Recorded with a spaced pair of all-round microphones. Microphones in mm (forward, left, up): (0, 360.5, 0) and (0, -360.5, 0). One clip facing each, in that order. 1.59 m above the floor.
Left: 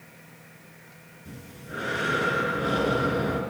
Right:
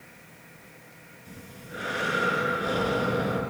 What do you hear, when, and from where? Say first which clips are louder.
1.2 s breathing: left 2 dB; 75° left (ahead or behind), 6 m